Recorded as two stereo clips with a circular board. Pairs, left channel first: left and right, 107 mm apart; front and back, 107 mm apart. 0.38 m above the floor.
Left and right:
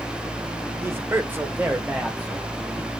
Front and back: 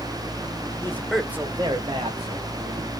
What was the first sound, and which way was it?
A man speaking, 40° right.